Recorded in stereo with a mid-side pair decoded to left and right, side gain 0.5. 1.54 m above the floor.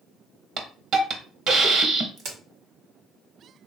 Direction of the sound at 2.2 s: 65° right.